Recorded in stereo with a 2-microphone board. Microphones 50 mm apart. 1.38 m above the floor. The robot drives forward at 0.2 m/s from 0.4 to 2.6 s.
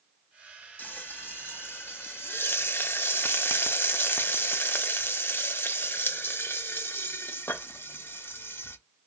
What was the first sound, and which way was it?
Frying, 40° left (ahead or behind).